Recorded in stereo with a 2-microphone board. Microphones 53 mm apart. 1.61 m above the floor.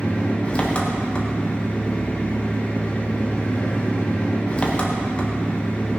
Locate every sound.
0.0 s an engine running: 25° left (ahead or behind), 1.6 m